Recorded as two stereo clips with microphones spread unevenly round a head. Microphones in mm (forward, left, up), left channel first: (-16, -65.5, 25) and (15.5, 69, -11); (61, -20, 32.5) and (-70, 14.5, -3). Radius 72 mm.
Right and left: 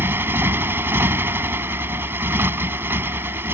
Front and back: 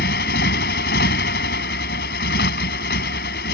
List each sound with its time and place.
0.0 s a motorcycle: straight ahead